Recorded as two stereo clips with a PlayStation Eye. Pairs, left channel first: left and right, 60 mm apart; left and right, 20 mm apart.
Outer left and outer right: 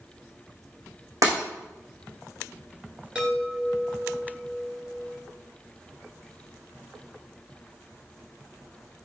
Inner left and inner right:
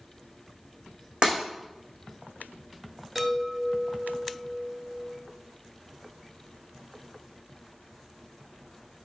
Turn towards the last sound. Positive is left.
turn(degrees=-15)  # may be behind; listen again after turning